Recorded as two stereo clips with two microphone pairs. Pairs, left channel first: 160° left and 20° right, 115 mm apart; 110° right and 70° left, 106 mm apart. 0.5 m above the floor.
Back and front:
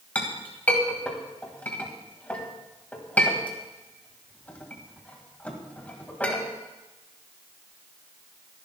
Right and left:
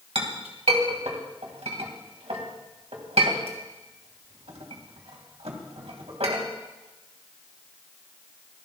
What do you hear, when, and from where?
0.1 s a clink: 80° left, 2.0 m